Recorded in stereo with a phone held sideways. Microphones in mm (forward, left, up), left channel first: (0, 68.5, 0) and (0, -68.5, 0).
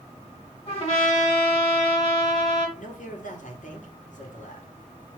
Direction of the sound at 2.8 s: 65° left (ahead or behind).